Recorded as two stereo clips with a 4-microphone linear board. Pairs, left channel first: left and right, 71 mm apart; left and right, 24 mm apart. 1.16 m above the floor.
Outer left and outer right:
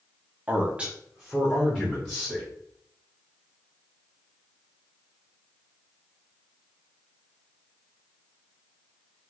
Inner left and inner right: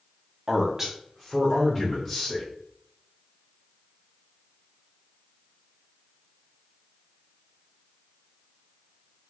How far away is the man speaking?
About 0.6 m.